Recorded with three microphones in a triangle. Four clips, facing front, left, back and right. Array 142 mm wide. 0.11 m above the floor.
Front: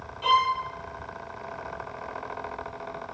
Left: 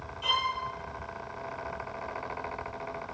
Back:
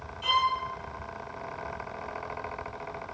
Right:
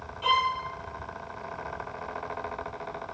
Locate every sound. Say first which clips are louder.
0.2 s a violin: right 6 dB, front 4 dB; 30° right, 1.2 m